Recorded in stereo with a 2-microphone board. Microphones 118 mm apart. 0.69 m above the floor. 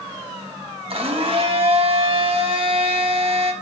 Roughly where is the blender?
Right.